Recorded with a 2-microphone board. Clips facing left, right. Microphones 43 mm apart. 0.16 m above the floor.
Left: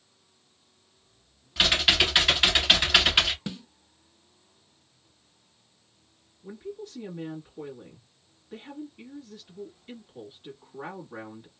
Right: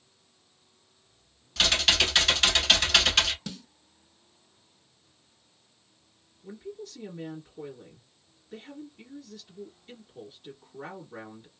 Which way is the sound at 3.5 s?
20° left (ahead or behind).